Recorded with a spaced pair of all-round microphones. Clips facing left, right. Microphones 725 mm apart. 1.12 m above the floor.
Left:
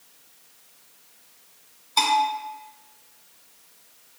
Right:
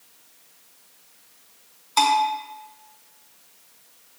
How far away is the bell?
About 0.6 m.